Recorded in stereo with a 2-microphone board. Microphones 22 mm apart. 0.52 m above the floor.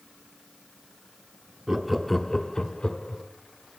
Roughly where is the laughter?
Right.